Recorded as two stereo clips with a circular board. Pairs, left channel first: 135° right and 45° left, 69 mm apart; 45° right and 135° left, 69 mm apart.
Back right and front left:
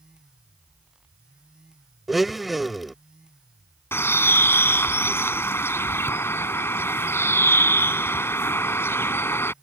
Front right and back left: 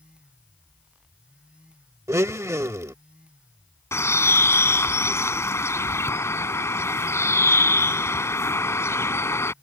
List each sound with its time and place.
2.1 s a blender: 135° left
3.9 s a bird: 85° right